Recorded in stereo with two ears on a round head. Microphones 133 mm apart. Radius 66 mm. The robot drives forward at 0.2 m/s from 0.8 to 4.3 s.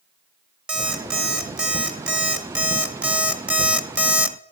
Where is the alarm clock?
5° right (ahead or behind), 1.2 m; by 4.4 s 10° right (ahead or behind), 0.6 m.